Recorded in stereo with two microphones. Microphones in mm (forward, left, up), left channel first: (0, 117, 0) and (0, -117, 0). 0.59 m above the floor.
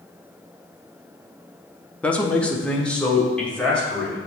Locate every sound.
2.0 s a man speaking: 5° left (ahead or behind), 0.7 m